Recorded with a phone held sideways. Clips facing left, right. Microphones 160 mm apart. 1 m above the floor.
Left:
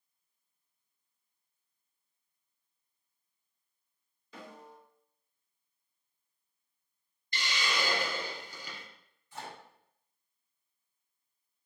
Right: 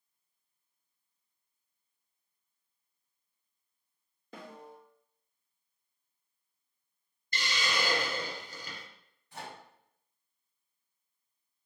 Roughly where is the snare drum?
Right.